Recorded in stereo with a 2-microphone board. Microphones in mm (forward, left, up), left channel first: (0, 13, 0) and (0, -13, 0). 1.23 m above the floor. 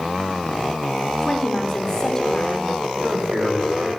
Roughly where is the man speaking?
Right.